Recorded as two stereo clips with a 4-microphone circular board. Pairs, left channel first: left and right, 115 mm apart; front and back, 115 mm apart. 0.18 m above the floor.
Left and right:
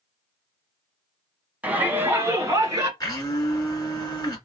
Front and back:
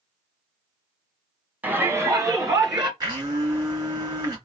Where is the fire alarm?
I don't hear a fire alarm.